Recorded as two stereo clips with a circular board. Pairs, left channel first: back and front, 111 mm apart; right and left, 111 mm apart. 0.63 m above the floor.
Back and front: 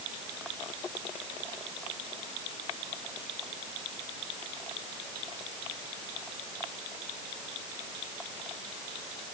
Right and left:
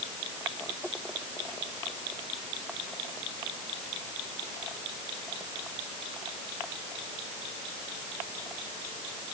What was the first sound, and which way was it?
Only background noise.